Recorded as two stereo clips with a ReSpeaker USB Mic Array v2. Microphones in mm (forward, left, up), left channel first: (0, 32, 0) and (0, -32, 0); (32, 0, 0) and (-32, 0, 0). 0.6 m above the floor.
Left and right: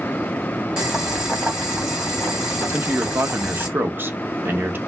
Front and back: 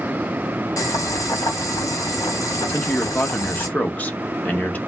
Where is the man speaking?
55° right, 0.8 m.